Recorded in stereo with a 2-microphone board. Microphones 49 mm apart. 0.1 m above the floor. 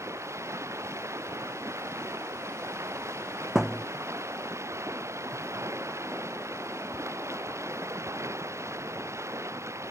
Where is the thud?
10° right (ahead or behind).